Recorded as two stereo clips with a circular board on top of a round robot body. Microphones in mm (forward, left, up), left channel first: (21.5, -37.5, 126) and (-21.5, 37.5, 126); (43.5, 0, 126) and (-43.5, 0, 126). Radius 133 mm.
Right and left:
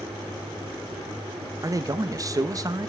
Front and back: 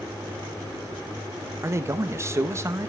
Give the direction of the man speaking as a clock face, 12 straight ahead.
7 o'clock.